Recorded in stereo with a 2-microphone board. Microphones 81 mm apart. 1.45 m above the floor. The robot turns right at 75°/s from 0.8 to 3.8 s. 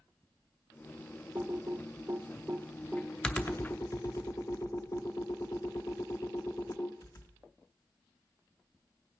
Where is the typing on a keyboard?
35° right (ahead or behind), 0.6 m; by 7.3 s 40° left (ahead or behind), 0.6 m.